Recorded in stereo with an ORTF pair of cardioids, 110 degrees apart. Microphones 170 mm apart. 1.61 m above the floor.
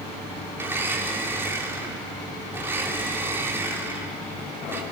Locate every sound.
0.6 s a blender: 15° right, 3 m